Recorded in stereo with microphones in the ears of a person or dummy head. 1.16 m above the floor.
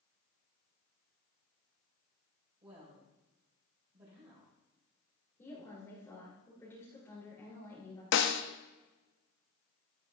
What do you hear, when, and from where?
2.6 s a woman speaking: 20° right (ahead or behind), 5 m
5.4 s a woman speaking: 20° left (ahead or behind), 3.5 m
8.1 s a snare drum: 70° left (ahead or behind), 1.1 m